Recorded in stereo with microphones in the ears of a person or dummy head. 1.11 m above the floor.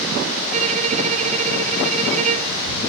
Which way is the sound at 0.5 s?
40° right (ahead or behind).